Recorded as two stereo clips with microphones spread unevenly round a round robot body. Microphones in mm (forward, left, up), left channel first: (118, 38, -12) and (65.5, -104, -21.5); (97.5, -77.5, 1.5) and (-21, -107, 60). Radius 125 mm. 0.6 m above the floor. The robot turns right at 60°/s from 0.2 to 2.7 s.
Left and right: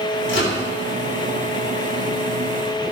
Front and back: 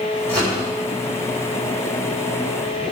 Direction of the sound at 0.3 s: 85° left.